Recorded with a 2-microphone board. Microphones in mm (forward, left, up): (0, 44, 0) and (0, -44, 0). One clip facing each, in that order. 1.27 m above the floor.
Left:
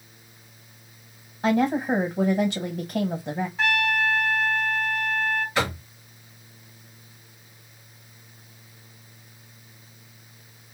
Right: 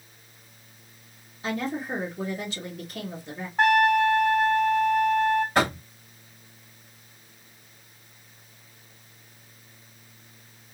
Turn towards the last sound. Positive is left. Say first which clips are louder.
# right 3 dB
turn(degrees=-50)  # may be behind; listen again after turning